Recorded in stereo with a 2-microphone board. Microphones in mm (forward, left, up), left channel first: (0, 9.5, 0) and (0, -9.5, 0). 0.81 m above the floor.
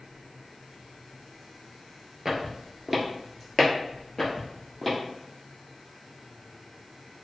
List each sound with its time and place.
2.2 s footsteps: 30° right (ahead or behind), 0.9 m; by 5.0 s 15° left (ahead or behind), 1.6 m